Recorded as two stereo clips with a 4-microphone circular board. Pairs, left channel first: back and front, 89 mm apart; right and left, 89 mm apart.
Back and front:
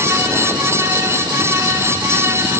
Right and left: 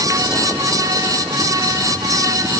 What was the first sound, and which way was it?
Only background noise.